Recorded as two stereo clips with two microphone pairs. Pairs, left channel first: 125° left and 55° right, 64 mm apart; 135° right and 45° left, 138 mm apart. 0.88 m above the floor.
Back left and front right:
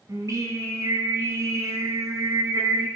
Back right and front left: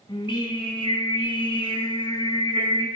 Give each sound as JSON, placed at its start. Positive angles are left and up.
{"t": 0.1, "sound": "singing", "azimuth_deg": -80, "distance_m": 5.5}